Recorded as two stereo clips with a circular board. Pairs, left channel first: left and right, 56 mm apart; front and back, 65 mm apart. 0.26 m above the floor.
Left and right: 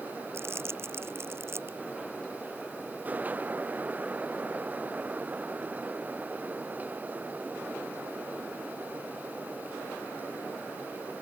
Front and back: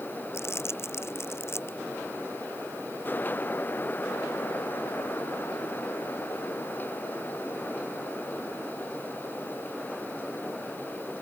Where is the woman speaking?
No woman speaking in this recording.